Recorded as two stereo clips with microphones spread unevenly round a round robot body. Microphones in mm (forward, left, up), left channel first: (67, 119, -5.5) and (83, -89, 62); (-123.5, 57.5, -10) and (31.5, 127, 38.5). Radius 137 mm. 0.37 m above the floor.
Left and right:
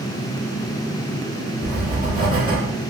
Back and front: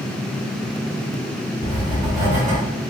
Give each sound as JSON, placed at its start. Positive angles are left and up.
{"t": 1.6, "sound": "writing", "azimuth_deg": -30, "distance_m": 1.0}